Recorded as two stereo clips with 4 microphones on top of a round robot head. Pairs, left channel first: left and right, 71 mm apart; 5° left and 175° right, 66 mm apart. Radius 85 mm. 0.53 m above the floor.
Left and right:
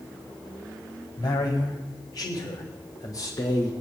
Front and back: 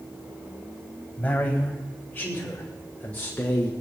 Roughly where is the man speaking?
Left.